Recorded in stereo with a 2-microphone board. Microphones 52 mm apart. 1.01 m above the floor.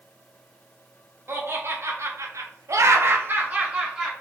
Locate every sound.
1.3 s laughter: 50° right (ahead or behind), 1.2 m; by 4.1 s 15° right (ahead or behind), 0.9 m